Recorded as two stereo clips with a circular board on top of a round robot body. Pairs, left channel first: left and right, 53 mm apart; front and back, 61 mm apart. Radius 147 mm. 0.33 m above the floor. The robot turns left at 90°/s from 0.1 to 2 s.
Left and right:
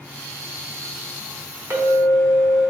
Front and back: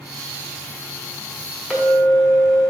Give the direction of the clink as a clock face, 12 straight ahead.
3 o'clock.